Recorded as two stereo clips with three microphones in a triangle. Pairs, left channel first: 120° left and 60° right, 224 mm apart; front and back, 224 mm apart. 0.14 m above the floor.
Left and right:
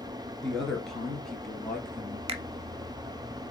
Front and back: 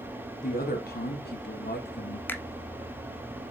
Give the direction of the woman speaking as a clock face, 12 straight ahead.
11 o'clock.